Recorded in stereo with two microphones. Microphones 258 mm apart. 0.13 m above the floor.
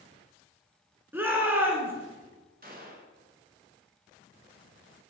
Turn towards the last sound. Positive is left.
turn(degrees=-35)  # may be behind; listen again after turning